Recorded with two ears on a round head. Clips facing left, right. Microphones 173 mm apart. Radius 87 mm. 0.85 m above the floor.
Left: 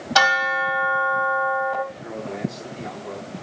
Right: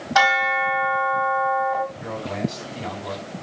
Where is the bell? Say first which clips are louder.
Right 2 dB; 40° left (ahead or behind), 4 m.